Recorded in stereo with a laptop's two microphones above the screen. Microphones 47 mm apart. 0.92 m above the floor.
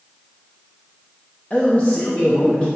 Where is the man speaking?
30° left (ahead or behind), 0.8 m.